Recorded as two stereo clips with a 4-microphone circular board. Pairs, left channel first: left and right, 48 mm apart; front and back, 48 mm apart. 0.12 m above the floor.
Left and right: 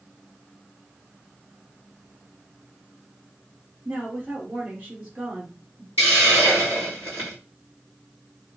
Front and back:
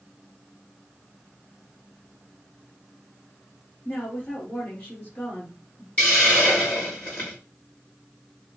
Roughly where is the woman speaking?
Ahead right.